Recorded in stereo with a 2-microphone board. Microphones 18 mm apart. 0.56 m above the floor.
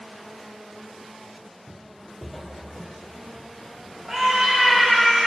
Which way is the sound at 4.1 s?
15° right (ahead or behind).